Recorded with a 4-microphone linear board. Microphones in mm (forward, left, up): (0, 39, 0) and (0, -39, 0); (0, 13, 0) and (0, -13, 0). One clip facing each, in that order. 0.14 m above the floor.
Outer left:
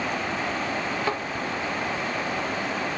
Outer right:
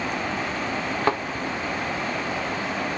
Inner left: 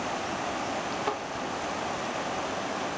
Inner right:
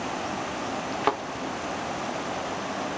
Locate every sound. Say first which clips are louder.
1.0 s a thud: outer right 7 dB, inner right 9 dB; 50° right (ahead or behind), 1.6 m